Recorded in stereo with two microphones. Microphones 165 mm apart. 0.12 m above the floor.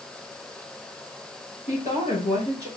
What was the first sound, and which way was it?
A woman speaking, 45° left (ahead or behind).